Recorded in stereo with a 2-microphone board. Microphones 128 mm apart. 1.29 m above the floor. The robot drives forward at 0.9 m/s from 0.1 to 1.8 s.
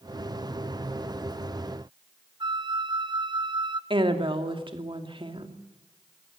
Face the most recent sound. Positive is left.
turn(degrees=-40)  # may be behind; listen again after turning